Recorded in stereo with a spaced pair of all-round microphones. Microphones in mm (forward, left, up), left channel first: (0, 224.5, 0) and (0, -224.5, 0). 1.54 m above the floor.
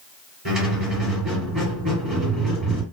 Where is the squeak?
55° right (ahead or behind), 2.5 m.